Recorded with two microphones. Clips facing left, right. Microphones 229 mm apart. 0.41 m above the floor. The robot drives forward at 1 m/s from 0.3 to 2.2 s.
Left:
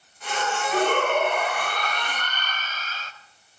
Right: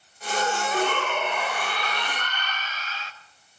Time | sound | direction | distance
0.7 | a shout | 45° left (ahead or behind) | 1.6 m